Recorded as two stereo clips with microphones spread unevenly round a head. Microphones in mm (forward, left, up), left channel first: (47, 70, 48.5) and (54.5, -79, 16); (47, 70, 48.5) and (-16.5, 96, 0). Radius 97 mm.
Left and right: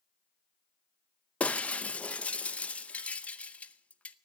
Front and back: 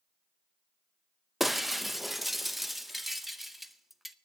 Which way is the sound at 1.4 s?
25° left.